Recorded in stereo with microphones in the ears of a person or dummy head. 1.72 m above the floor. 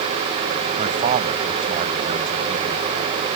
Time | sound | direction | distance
0.8 | a man speaking | 35° right (ahead or behind) | ?